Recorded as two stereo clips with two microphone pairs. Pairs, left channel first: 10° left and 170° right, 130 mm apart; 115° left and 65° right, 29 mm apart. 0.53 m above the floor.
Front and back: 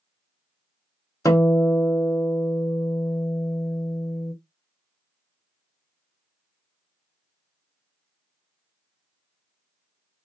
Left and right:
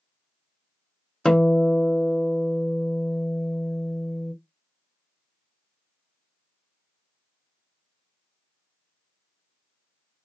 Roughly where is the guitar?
Ahead left.